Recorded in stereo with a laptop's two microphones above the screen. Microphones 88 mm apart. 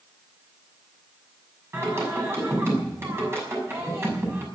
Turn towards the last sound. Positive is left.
turn(degrees=-30)  # may be behind; listen again after turning